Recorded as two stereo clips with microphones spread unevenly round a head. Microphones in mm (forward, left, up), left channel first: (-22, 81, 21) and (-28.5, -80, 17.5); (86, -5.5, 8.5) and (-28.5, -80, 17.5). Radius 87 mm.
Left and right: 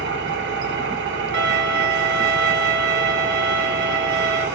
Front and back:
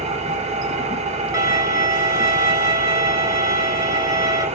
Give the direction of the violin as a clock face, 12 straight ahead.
3 o'clock.